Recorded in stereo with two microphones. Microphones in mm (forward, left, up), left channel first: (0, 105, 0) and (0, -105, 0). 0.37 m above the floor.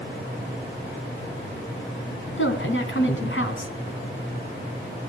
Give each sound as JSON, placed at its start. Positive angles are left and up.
{"t": 2.4, "sound": "a woman speaking", "side_deg": 70, "distance_m": 3.0}